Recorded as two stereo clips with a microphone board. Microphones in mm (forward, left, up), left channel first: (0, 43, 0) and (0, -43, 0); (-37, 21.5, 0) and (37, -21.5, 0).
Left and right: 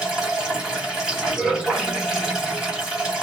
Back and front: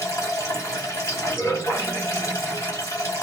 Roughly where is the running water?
Behind.